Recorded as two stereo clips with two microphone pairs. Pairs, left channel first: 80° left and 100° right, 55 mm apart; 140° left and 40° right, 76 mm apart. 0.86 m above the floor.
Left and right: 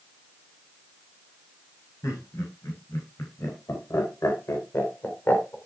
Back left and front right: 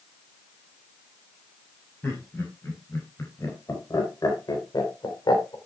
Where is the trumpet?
No trumpet in this recording.